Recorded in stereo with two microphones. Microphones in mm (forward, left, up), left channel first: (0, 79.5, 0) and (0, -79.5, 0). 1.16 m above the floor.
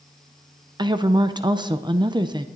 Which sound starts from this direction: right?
A woman speaking, at 0.8 s.